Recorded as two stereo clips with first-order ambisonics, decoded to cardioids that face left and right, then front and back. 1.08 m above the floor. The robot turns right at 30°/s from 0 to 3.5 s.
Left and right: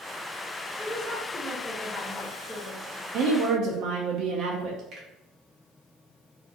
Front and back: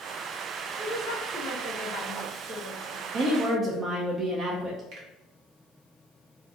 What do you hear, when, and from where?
0.8 s a woman speaking: 35° right, 1.2 m; by 3.0 s 35° left, 1.2 m
3.1 s a woman speaking: 130° right, 0.5 m; by 4.8 s 120° right, 0.5 m
4.9 s a finger snap: 140° right, 1.0 m